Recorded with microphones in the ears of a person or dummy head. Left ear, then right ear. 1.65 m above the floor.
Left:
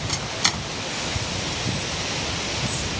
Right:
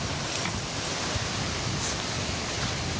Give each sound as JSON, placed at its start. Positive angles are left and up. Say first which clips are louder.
{"t": 0.1, "sound": "a microwave", "louder": "left 11 dB", "side_deg": 85}